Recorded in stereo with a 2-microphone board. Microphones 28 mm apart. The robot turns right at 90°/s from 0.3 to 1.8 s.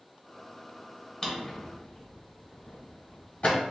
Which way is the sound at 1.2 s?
25° left (ahead or behind).